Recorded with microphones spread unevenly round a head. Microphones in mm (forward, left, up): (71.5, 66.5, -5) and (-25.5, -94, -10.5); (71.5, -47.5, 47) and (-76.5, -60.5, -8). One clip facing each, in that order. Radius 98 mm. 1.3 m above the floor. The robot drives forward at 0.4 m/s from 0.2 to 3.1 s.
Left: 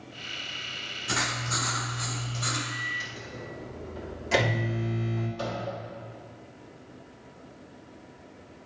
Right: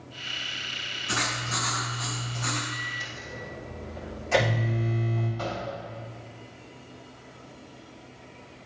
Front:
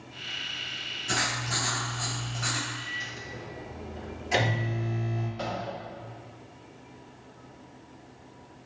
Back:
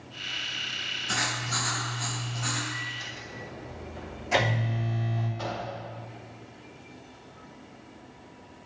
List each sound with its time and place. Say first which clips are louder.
1.1 s writing: even, front 1 dB; 40° left, 3 m; by 2.6 s 50° left, 2.5 m
2.7 s a microwave: even, even; 100° left, 3 m
5.4 s a microwave: even, front 2 dB; 70° left, 4 m